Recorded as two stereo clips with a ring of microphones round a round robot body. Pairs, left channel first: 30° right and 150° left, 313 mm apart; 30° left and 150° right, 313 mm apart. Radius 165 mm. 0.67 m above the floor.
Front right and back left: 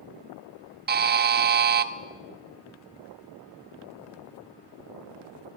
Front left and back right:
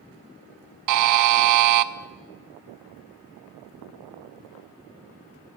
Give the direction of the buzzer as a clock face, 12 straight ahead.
5 o'clock.